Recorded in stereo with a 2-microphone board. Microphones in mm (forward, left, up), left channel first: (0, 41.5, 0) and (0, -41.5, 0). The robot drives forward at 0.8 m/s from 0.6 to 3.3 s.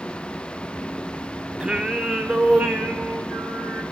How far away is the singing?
About 0.8 m.